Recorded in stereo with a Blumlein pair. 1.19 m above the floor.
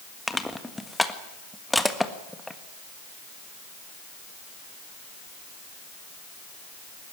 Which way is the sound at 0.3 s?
5° left.